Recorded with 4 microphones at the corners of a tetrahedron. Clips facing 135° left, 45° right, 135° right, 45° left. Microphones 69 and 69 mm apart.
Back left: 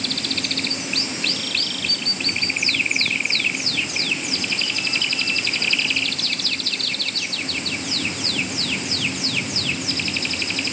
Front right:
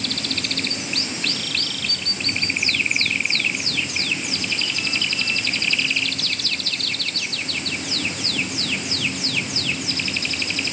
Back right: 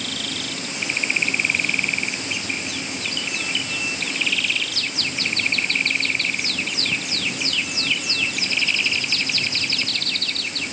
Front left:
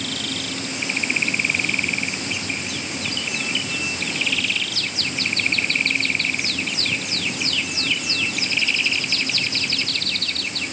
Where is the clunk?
I don't hear a clunk.